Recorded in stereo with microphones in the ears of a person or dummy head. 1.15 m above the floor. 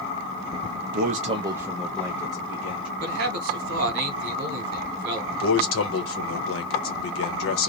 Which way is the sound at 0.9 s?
60° right (ahead or behind).